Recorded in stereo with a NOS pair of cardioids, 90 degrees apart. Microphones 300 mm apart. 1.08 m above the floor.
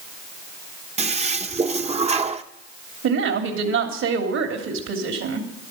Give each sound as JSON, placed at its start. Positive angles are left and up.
{"t": 1.0, "sound": "a toilet flushing", "azimuth_deg": -20, "distance_m": 1.0}
{"t": 3.0, "sound": "a woman speaking", "azimuth_deg": -65, "distance_m": 3.0}